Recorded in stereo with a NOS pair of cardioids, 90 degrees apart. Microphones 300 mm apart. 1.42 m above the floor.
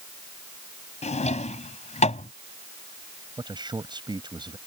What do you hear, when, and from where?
1.0 s a drawer: 25° left
3.4 s a man speaking: 15° right